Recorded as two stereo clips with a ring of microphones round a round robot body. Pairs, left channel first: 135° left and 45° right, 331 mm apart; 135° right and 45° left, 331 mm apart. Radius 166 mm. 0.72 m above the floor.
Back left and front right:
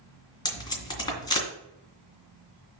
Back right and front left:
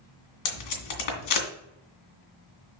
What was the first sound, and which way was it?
Tape being pulled, 145° right.